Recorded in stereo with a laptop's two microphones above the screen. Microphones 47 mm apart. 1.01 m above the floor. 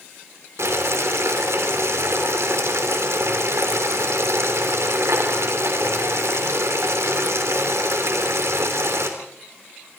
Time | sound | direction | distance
0.6 | boiling | 80° right | 3.5 m